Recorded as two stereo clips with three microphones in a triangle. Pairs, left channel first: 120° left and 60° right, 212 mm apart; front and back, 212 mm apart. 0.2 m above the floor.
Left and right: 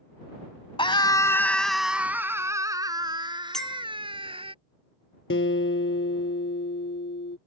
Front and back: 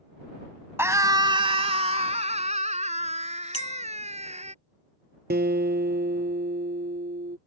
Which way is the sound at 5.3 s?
140° left.